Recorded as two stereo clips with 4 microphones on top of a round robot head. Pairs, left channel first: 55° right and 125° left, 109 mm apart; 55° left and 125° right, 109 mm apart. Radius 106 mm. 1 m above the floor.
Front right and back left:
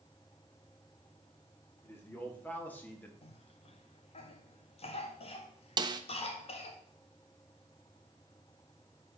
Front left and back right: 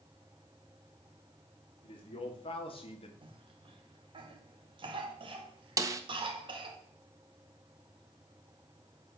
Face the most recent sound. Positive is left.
turn(degrees=175)